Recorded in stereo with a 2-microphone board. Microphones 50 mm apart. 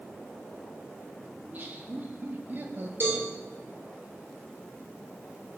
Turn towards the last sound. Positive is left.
turn(degrees=-45)  # may be behind; listen again after turning